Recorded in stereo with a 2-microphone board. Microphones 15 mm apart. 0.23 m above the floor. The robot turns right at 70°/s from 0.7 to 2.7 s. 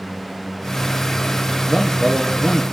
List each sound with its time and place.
1.7 s a man speaking: 100° right, 3.5 m; by 2.6 s 35° right, 3.5 m